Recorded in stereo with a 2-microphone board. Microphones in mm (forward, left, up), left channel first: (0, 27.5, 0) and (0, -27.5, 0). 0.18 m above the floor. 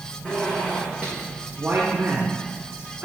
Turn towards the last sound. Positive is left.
turn(degrees=-25)  # may be behind; listen again after turning